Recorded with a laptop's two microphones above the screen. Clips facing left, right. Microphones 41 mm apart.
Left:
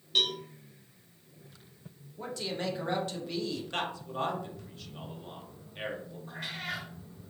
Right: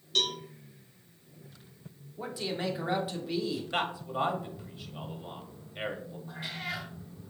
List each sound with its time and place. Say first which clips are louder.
0.1 s a cowbell: left 1 dB; 15° left (ahead or behind), 0.7 m
2.2 s a man speaking: right 1 dB; 10° right (ahead or behind), 0.6 m
3.7 s a man speaking: right 3 dB; 15° right (ahead or behind), 0.9 m
6.3 s a cat meowing: even; 75° left (ahead or behind), 2 m